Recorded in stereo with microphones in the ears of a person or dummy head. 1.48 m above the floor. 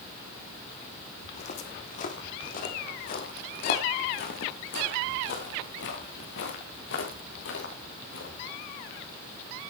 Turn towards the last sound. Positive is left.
turn(degrees=75)  # may be behind; listen again after turning